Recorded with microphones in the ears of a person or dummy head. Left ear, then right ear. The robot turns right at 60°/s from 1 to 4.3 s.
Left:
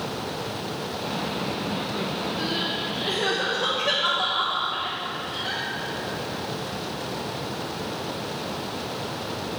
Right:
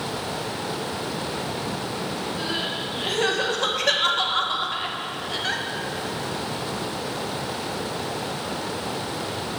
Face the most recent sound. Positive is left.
turn(degrees=-55)  # may be behind; listen again after turning